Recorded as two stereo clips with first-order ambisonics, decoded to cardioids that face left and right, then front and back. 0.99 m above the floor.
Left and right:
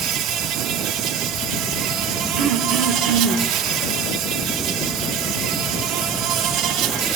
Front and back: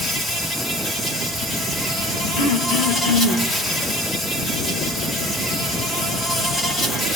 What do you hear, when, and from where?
0.0 s an insect: 70° right, 2 m
2.4 s throat clearing: 40° right, 2.5 m